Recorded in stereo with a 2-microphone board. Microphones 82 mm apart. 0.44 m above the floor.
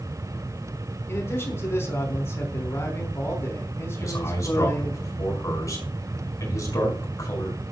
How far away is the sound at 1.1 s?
About 3.5 m.